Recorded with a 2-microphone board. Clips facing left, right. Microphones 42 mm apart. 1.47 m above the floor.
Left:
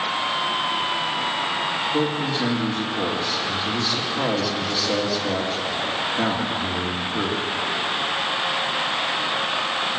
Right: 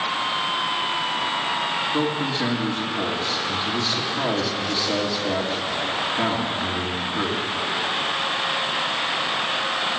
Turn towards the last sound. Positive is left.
turn(degrees=5)  # may be behind; listen again after turning